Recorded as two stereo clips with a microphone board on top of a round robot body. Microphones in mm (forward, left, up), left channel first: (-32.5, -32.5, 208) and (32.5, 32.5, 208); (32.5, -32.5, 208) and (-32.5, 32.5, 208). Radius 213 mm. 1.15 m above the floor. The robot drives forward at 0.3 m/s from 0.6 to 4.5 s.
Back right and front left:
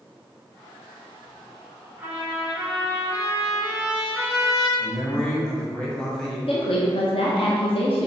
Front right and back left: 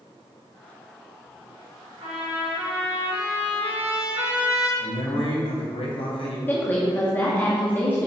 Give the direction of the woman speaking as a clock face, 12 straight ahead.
4 o'clock.